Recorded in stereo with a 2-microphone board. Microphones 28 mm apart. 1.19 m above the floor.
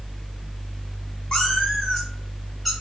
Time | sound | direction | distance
1.3 | a cat meowing | 15° left (ahead or behind) | 5 m